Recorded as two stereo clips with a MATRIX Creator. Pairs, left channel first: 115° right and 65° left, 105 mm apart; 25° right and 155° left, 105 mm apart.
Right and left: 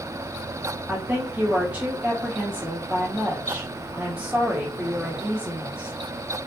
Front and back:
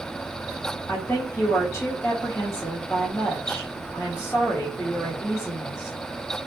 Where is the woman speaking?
5° left, 0.8 m.